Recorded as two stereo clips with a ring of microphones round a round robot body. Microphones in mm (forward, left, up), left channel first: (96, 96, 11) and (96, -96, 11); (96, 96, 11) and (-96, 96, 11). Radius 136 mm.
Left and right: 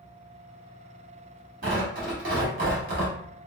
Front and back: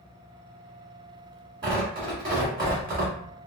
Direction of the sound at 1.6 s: 115° right.